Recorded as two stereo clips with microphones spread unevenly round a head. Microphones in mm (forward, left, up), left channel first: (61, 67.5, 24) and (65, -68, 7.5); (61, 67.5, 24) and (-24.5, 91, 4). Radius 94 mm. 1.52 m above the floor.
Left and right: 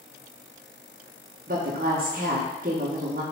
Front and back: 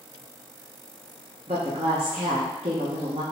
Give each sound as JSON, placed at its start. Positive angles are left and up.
{"t": 1.5, "sound": "a woman speaking", "azimuth_deg": -140, "distance_m": 1.0}